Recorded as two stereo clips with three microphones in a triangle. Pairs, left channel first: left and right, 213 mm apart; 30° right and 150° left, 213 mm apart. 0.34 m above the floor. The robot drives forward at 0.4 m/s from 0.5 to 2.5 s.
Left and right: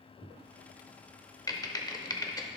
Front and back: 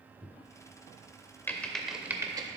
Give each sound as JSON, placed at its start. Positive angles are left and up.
{"t": 1.5, "sound": "typing on a keyboard", "azimuth_deg": 35, "distance_m": 0.7}